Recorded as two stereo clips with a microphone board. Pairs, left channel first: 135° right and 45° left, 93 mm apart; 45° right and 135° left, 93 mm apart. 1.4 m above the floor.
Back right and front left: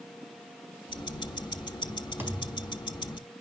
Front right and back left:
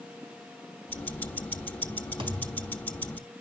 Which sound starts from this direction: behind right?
Ticking, at 0.9 s.